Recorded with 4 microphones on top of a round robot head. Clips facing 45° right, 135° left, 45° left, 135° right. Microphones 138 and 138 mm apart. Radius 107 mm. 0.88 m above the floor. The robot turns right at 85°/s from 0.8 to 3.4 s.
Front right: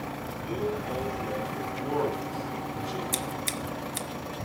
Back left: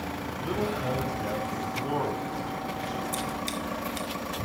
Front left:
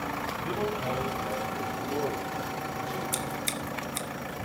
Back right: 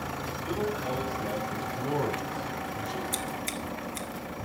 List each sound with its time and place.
0.4 s a man speaking: 115° left, 4 m; by 3.0 s 60° right, 4 m
3.1 s scissors: 35° right, 1.4 m; by 4.1 s 10° right, 1.4 m